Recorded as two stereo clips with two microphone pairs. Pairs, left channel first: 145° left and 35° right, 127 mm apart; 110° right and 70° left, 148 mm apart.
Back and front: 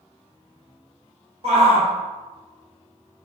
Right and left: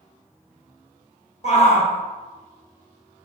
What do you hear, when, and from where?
1.4 s a shout: 70° right, 0.8 m